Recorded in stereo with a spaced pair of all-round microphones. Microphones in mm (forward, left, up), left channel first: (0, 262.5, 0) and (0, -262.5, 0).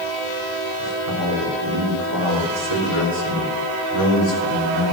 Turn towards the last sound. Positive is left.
turn(degrees=-85)